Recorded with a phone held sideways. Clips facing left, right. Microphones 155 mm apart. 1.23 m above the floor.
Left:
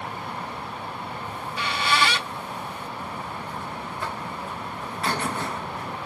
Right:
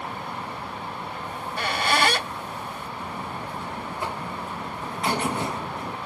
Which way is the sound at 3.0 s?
15° right (ahead or behind).